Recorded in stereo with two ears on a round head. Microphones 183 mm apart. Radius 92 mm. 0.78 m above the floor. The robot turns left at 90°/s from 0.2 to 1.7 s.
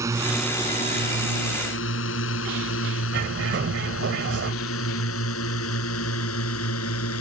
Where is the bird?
60° right (ahead or behind).